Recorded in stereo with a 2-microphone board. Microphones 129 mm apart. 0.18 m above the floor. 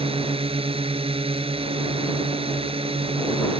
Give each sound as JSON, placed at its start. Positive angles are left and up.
{"t": 0.0, "sound": "a drone", "side_deg": -45}